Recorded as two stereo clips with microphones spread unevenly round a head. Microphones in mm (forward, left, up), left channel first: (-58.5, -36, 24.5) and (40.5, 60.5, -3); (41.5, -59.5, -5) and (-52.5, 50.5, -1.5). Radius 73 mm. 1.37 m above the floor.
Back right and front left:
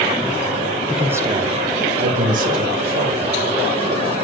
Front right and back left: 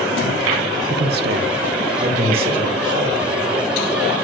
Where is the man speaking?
135° left, 0.7 m; by 3.5 s 65° left, 2.5 m.